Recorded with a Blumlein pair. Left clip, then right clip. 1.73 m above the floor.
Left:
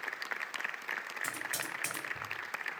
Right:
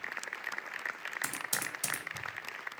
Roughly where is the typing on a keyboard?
Ahead right.